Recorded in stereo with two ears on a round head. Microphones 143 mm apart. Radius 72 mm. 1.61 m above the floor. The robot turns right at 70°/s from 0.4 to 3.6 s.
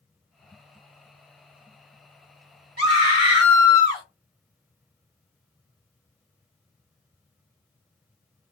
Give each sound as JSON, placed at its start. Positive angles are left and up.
{"t": 2.8, "sound": "a scream", "azimuth_deg": -115, "distance_m": 2.0}